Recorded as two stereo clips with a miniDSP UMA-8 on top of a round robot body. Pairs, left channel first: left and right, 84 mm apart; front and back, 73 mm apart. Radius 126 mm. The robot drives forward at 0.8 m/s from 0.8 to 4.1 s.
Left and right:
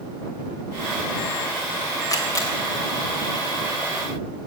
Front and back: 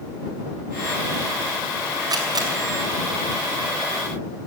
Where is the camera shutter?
140° left, 2.5 m; by 2.5 s 145° left, 3 m.